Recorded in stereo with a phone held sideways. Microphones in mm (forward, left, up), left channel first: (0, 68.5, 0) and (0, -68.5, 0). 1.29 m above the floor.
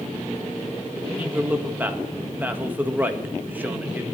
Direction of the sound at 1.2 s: 15° right (ahead or behind).